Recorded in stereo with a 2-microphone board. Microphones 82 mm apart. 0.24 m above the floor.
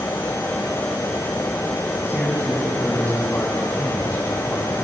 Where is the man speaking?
15° left (ahead or behind), 2 m.